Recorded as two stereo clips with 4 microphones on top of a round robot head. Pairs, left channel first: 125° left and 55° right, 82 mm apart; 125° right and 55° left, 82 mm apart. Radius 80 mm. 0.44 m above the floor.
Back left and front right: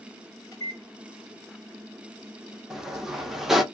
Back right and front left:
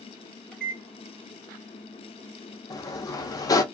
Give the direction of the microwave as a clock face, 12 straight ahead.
7 o'clock.